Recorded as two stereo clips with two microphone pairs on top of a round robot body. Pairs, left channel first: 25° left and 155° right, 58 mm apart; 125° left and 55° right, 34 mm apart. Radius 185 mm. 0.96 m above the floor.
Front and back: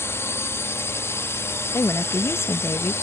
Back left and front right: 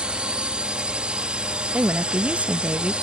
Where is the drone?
5° right.